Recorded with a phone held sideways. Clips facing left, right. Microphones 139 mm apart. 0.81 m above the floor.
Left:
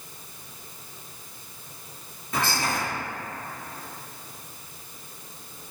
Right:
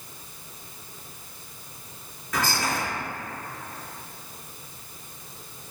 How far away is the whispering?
About 1.4 m.